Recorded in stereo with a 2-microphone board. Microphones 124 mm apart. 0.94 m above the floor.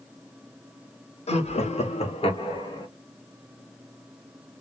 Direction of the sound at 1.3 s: 60° left (ahead or behind).